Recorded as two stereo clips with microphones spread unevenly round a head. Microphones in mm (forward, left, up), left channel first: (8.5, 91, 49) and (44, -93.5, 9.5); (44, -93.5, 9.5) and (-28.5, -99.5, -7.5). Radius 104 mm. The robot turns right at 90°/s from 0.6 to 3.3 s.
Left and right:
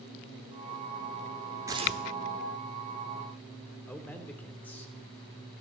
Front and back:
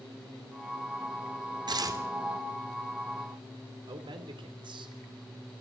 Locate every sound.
1.7 s tearing paper: 155° right, 3 m; by 2.0 s 125° right, 3 m
3.9 s a man speaking: 175° right, 3.5 m